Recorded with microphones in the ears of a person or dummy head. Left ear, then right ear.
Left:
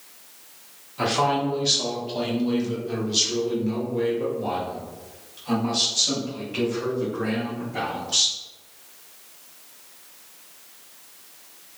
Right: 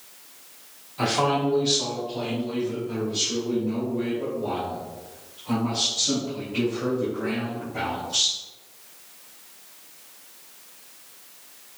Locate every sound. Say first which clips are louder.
1.0 s a man speaking: left 1 dB; 5° right (ahead or behind), 1.3 m; by 8.4 s 70° left (ahead or behind), 4 m